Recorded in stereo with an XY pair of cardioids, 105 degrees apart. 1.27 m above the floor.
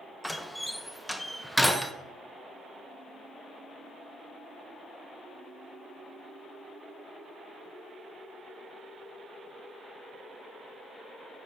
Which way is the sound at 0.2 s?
5° left.